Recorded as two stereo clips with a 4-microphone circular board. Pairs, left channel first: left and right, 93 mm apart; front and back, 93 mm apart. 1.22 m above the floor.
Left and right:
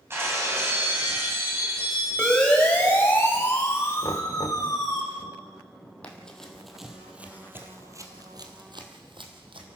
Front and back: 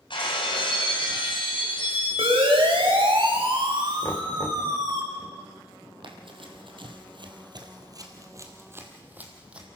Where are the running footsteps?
165° left, 3 m; by 9.7 s 100° right, 3 m.